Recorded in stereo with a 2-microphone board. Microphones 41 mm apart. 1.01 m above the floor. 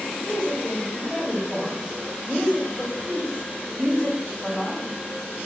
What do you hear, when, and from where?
0.2 s a woman speaking: 15° right (ahead or behind), 4 m